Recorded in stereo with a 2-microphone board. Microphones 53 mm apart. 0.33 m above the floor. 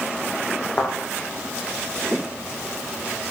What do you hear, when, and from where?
0.8 s a thud: 40° left (ahead or behind), 3.5 m